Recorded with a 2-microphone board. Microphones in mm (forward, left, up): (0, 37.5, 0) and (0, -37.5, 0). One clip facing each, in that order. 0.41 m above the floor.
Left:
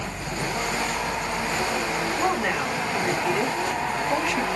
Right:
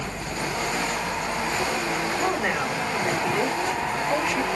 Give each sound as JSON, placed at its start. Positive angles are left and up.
{"t": 2.2, "sound": "a woman speaking", "side_deg": -20, "distance_m": 1.7}